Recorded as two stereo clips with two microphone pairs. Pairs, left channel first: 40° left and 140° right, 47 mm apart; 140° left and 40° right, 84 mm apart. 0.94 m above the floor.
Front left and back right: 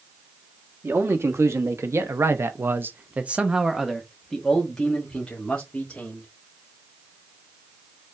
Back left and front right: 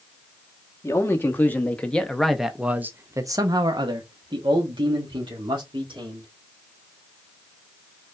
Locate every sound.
0.8 s a man speaking: 160° right, 1.5 m; by 6.3 s 30° right, 2 m